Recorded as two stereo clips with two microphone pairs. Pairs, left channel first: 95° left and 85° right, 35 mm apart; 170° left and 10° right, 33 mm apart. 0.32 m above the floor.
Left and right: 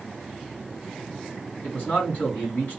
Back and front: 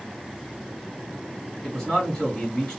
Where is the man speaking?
95° left, 2 m.